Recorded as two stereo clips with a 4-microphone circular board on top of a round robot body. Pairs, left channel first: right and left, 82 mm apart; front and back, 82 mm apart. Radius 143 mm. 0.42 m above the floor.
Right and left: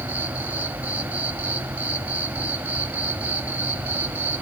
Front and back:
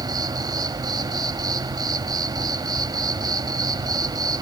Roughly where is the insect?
Behind left.